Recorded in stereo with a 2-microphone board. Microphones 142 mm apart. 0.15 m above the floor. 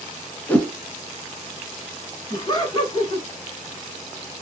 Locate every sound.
0.5 s a whoosh: 10° left (ahead or behind), 0.8 m
2.3 s laughter: 30° left (ahead or behind), 1.2 m